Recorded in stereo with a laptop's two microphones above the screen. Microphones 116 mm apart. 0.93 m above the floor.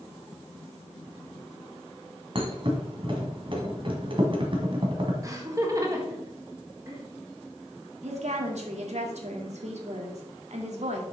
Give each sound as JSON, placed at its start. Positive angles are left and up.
{"t": 2.4, "sound": "a thud", "side_deg": -45, "distance_m": 1.8}
{"t": 5.2, "sound": "laughter", "side_deg": -30, "distance_m": 1.2}
{"t": 8.0, "sound": "a woman speaking", "side_deg": -70, "distance_m": 1.7}